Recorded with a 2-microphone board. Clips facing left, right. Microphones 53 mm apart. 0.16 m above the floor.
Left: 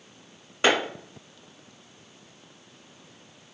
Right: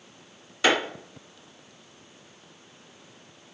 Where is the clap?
30° left (ahead or behind), 1.6 m.